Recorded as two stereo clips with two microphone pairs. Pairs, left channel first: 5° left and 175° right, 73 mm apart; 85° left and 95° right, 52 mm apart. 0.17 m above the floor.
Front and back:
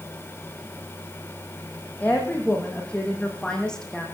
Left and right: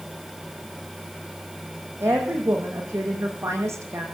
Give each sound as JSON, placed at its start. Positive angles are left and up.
{"t": 2.0, "sound": "a woman speaking", "azimuth_deg": -65, "distance_m": 7.0}